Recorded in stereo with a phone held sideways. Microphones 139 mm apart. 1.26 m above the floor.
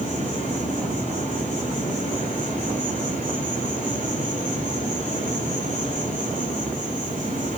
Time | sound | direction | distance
0.0 | an insect | 70° right (ahead or behind) | 3.5 m